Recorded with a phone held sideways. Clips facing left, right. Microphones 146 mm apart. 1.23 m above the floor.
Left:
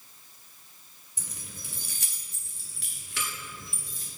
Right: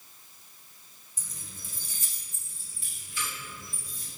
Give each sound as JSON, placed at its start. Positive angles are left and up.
{"t": 1.2, "sound": "keys jangling", "side_deg": 65, "distance_m": 1.1}